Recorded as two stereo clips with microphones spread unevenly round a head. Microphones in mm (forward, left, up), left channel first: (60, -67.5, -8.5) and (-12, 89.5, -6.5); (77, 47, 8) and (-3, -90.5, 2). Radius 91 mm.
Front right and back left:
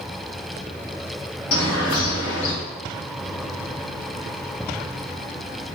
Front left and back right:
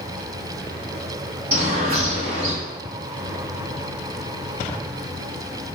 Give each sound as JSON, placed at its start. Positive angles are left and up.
{"t": 1.5, "sound": "a bird", "azimuth_deg": -70, "distance_m": 2.0}